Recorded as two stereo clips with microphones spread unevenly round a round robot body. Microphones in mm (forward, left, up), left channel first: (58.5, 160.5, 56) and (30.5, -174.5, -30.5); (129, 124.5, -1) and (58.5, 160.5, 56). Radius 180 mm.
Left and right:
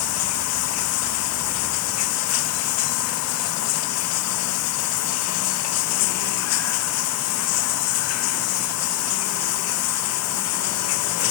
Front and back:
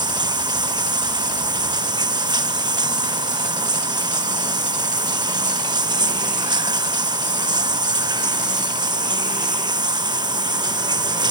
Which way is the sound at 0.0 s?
135° left.